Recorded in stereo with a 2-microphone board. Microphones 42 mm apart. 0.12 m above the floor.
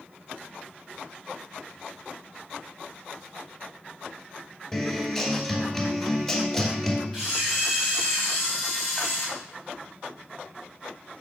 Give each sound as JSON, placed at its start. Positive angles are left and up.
{"t": 4.7, "sound": "a guitar", "side_deg": 5, "distance_m": 1.6}
{"t": 7.1, "sound": "a camera shutter", "side_deg": 5, "distance_m": 3.0}